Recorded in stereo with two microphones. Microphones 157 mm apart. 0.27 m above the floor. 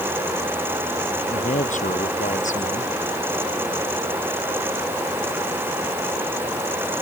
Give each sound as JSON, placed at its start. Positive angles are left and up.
{"t": 1.3, "sound": "a man speaking", "side_deg": 50}